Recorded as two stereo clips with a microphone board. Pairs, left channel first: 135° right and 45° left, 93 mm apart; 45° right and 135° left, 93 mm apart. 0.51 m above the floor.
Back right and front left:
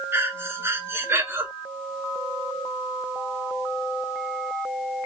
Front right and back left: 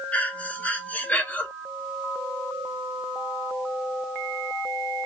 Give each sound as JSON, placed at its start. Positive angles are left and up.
{"t": 0.1, "sound": "breathing", "azimuth_deg": 15, "distance_m": 0.8}